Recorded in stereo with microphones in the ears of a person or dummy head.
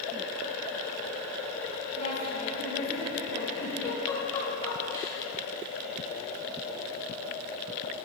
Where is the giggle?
15° left (ahead or behind), 1.7 m.